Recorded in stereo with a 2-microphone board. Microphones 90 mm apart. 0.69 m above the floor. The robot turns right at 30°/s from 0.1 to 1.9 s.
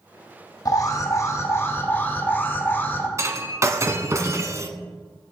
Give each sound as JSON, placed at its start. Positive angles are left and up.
{"t": 0.7, "sound": "an alarm", "azimuth_deg": 105, "distance_m": 2.5}
{"t": 3.2, "sound": "breaking glass", "side_deg": -35, "distance_m": 1.2}